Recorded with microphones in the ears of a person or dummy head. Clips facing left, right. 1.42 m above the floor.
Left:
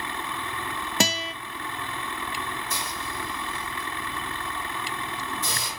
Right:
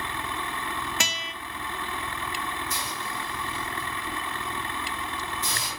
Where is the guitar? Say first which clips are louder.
Left 8 dB; 30° left (ahead or behind), 0.7 m.